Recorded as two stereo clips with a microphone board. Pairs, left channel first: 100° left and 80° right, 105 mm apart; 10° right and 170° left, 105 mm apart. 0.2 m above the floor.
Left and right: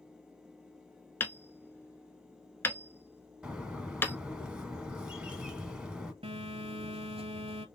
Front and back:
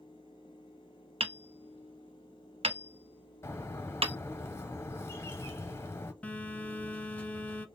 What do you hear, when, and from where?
1.2 s hammering: 165° left, 0.6 m
3.4 s a bird: 10° right, 1.0 m
6.2 s a phone buzzing: 90° right, 0.8 m